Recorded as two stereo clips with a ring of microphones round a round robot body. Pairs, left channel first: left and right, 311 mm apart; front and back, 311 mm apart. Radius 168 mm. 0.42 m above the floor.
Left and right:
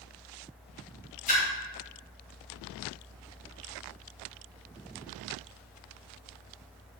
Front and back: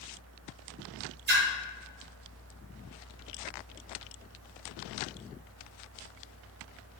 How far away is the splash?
About 0.5 m.